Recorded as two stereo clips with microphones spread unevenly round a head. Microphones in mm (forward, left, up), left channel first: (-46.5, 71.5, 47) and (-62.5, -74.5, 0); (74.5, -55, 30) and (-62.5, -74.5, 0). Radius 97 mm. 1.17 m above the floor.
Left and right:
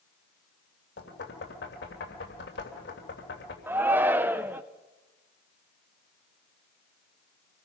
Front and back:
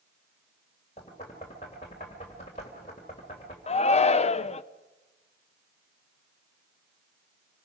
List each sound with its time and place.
1.0 s knocking: 70° left, 3 m
3.7 s a shout: 35° right, 0.7 m